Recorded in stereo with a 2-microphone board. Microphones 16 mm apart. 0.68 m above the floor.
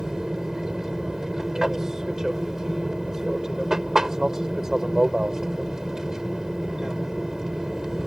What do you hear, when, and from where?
0.0 s an aircraft: 35° right (ahead or behind)